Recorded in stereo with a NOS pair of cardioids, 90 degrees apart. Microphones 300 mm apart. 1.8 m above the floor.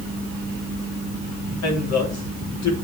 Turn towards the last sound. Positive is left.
turn(degrees=65)